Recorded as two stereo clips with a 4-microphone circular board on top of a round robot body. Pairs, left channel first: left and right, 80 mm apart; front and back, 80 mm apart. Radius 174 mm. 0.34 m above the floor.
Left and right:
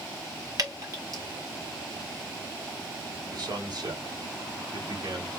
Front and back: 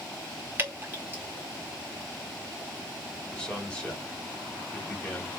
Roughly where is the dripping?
Behind right.